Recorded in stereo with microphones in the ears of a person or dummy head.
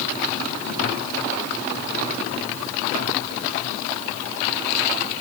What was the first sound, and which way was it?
Only background noise.